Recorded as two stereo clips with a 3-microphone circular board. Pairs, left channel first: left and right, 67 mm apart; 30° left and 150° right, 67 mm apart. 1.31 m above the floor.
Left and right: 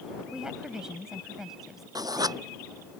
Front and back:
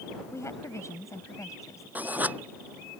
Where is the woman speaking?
10° right; by 1.9 s 5° right.